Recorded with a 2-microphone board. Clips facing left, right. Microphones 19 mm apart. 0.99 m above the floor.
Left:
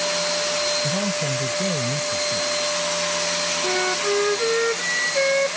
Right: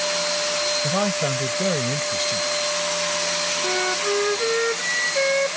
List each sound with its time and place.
0.8 s a man speaking: 45° right (ahead or behind)
3.6 s a flute: centre (ahead or behind)